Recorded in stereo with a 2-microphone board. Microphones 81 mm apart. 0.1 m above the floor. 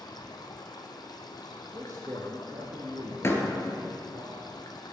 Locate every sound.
0.0 s running water: 55° left (ahead or behind), 1.1 m
1.7 s a man speaking: 40° right (ahead or behind), 1.3 m
3.2 s a door slam: 30° left (ahead or behind), 1.3 m